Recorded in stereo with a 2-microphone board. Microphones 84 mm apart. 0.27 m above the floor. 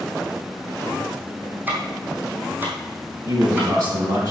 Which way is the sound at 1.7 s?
20° right (ahead or behind).